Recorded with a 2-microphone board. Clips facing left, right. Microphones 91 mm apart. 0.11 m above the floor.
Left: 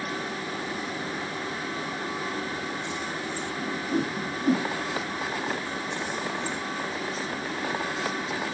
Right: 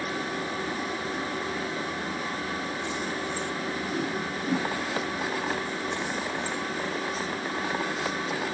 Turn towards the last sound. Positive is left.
turn(degrees=25)  # may be behind; listen again after turning